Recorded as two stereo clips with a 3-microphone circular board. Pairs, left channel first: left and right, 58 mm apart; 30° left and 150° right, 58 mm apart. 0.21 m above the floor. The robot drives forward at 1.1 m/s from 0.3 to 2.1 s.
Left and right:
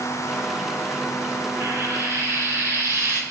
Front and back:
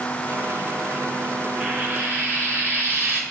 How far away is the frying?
About 1.5 m.